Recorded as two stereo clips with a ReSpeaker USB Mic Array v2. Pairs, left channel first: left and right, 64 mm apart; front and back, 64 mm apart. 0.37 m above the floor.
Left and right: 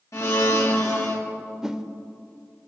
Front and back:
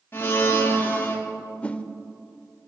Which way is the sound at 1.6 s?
25° right.